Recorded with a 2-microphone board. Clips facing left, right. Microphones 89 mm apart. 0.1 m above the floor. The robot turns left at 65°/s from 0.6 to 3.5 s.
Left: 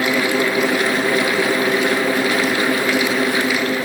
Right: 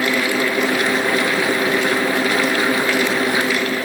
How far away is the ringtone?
No ringtone in this recording.